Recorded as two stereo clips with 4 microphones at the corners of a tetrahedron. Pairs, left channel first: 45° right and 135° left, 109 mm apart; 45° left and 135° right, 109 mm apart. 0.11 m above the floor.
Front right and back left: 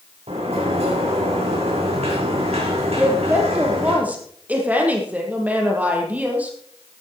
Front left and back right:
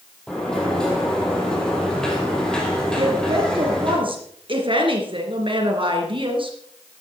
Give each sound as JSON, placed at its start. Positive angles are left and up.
{"t": 0.3, "sound": "a sliding door", "azimuth_deg": 130, "distance_m": 4.0}
{"t": 3.0, "sound": "a woman speaking", "azimuth_deg": -150, "distance_m": 3.0}